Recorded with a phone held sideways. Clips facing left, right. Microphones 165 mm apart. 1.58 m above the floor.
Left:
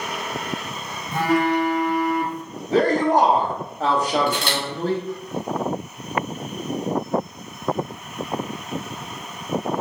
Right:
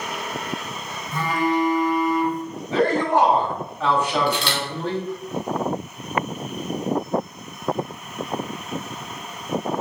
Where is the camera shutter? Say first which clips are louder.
Even; 50° left (ahead or behind), 0.9 m.